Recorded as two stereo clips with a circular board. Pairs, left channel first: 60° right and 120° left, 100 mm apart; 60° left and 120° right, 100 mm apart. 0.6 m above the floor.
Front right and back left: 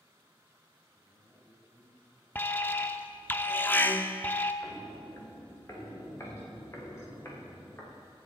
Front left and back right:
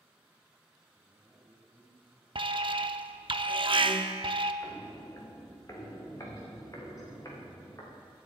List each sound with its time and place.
0.9 s a man speaking: 45° right, 5 m
2.4 s an alarm: 125° right, 0.6 m
4.6 s footsteps: 5° right, 2.5 m; by 8.0 s 5° left, 4.5 m